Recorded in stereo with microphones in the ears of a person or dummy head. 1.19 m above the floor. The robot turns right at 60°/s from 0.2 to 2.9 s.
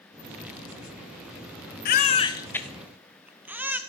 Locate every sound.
1.9 s a baby crying: 50° left (ahead or behind), 0.7 m; by 3.8 s 10° right (ahead or behind), 0.7 m